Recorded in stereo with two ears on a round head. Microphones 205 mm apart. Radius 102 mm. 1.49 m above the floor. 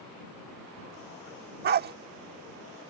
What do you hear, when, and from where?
1.6 s a dog barking: 40° right (ahead or behind)